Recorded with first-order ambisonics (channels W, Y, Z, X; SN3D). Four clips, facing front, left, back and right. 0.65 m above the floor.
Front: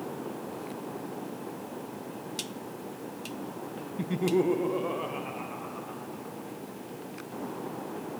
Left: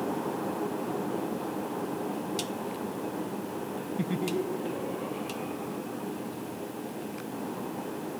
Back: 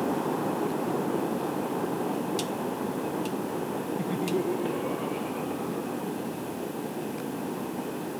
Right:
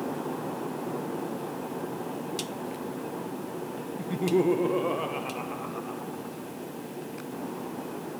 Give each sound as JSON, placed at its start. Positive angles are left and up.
{"t": 4.0, "sound": "laughter", "azimuth_deg": 80, "distance_m": 0.6}